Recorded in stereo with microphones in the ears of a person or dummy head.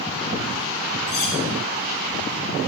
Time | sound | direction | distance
1.1 | cutlery clinking | 60° left (ahead or behind) | 5 m